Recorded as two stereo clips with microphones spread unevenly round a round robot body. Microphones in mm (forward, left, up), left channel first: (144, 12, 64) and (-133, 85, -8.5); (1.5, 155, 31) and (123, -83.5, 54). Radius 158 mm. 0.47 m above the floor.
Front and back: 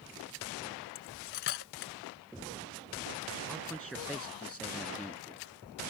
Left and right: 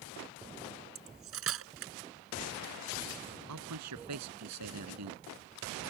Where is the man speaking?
105° right.